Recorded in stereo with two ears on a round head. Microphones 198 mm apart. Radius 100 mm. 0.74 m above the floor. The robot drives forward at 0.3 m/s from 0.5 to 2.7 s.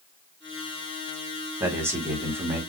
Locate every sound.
1.6 s a man speaking: 10° right (ahead or behind), 1.8 m